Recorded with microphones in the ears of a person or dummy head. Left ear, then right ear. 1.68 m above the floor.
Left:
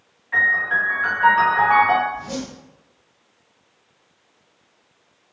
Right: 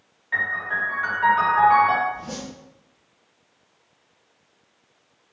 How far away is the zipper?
About 2 m.